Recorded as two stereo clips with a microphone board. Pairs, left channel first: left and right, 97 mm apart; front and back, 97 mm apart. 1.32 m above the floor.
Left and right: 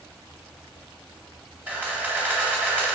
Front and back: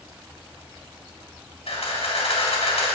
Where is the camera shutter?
15° right, 3 m.